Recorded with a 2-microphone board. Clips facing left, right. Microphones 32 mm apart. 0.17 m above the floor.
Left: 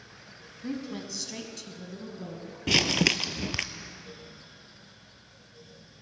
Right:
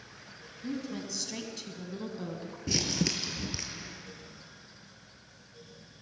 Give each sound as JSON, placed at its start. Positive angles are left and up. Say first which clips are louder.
{"t": 0.6, "sound": "a woman speaking", "louder": "left 1 dB", "side_deg": 30, "distance_m": 1.3}
{"t": 2.7, "sound": "crumpling", "louder": "left 8 dB", "side_deg": 80, "distance_m": 0.5}